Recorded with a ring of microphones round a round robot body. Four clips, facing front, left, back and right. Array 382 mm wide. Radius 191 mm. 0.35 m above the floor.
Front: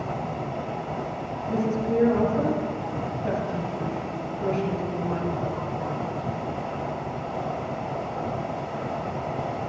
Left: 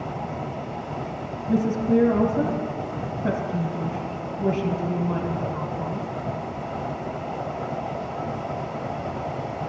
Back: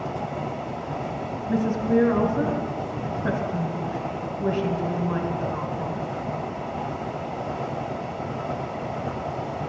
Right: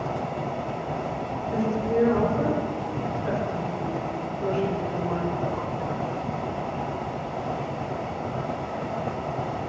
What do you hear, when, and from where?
1.5 s a woman speaking: 115° left, 2 m